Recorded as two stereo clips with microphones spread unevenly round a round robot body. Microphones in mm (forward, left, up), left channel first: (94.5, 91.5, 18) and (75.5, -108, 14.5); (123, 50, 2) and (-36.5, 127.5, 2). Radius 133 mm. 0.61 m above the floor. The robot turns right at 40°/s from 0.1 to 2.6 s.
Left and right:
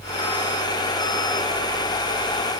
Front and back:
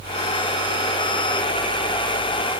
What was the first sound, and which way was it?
Only background noise.